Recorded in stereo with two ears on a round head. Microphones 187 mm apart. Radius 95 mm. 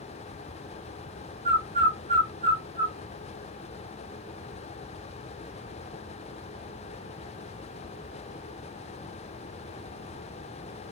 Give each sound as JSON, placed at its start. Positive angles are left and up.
{"t": 1.4, "sound": "a bird", "side_deg": -25, "distance_m": 0.6}